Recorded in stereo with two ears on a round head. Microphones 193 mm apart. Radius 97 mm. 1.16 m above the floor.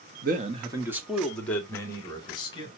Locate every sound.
0.2 s a man speaking: 45° right (ahead or behind), 1.4 m; by 2.7 s 25° left (ahead or behind), 3.5 m